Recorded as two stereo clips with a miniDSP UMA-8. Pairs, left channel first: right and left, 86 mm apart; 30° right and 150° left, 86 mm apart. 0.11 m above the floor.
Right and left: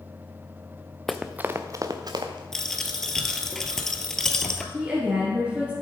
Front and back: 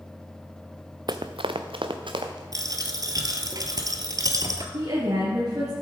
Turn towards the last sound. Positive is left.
turn(degrees=165)